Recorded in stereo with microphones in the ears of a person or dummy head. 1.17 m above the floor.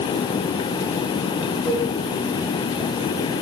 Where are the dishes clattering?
5° right (ahead or behind), 10 m.